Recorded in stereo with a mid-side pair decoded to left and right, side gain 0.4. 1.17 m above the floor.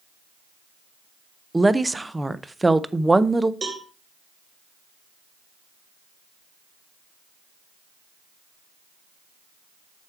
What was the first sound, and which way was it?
A woman speaking, 15° right.